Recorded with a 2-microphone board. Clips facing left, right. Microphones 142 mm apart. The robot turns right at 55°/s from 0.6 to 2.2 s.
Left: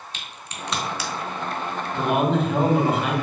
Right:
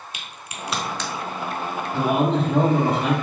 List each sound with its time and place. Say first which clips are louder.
0.1 s a crack: right 1 dB; 10° right (ahead or behind), 0.7 m; by 1.1 s 15° left (ahead or behind), 0.7 m
1.9 s a man speaking: right 1 dB; 55° right (ahead or behind), 1.9 m; by 3.1 s 45° right (ahead or behind), 1.9 m